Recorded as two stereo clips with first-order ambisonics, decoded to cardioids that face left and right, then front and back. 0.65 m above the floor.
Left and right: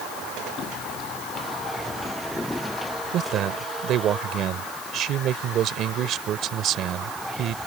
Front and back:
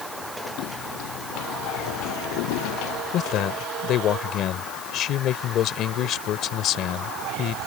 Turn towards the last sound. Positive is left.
turn(degrees=-45)